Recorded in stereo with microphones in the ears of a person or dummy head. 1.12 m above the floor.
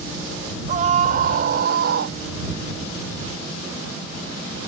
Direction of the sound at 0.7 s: 50° right (ahead or behind).